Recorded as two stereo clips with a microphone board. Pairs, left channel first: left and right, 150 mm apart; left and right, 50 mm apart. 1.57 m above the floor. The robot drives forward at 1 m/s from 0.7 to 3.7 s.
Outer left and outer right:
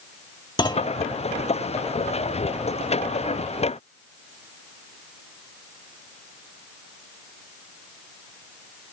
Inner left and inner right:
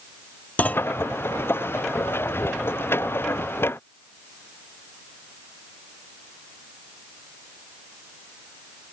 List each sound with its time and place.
0.6 s a clunk: 30° left (ahead or behind)